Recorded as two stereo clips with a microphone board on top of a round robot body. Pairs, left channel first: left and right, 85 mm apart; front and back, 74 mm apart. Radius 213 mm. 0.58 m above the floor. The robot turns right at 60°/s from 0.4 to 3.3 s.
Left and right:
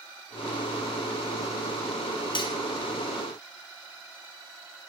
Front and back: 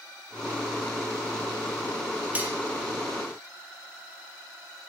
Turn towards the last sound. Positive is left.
turn(degrees=170)